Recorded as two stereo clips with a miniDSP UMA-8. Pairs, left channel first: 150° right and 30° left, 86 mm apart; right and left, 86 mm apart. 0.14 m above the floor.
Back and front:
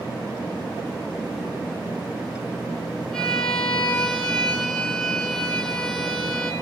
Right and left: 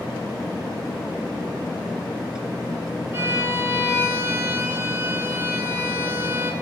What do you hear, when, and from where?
3.1 s a violin: 135° left, 1.1 m